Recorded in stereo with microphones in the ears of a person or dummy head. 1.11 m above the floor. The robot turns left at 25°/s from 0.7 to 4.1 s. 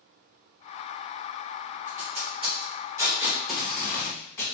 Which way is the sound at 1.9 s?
40° right (ahead or behind).